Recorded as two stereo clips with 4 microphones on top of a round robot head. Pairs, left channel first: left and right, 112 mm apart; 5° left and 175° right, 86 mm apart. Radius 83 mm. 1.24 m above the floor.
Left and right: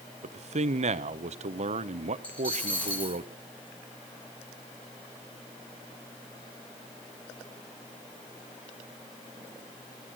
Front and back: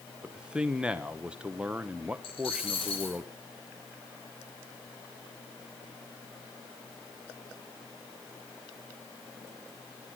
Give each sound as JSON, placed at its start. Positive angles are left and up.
{"t": 0.2, "sound": "a man speaking", "azimuth_deg": -100, "distance_m": 1.1}
{"t": 2.2, "sound": "a dropped coin", "azimuth_deg": 10, "distance_m": 9.0}